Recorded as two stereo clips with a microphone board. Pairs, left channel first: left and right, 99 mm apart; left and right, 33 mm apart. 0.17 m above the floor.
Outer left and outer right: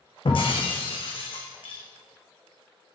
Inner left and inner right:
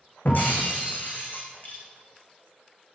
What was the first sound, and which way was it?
Breaking glass, 60° left (ahead or behind).